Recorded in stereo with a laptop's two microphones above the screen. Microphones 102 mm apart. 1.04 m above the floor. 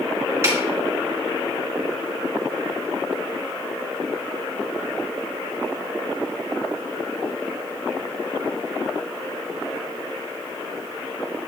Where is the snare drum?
25° right (ahead or behind), 3 m.